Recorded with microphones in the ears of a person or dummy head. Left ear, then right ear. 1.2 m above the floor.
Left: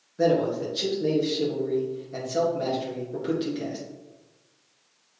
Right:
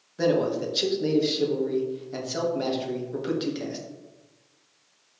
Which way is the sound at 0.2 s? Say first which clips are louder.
Left 1 dB; 25° right (ahead or behind).